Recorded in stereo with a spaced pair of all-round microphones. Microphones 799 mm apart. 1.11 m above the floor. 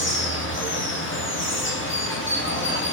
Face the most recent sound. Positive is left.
turn(degrees=15)  # may be behind; listen again after turning